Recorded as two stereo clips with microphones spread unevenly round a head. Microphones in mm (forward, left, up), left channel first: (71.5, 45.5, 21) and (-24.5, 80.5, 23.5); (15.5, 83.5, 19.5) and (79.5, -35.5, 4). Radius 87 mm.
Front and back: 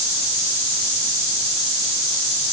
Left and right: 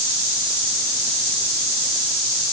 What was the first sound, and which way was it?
Only background noise.